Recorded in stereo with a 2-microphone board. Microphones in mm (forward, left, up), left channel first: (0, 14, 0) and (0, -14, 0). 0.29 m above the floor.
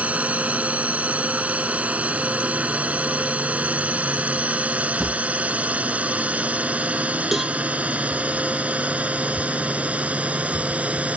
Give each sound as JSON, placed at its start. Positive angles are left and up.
{"t": 0.0, "sound": "a drone", "side_deg": -60}
{"t": 5.0, "sound": "a drawer", "side_deg": 5}
{"t": 7.3, "sound": "a cowbell", "side_deg": -5}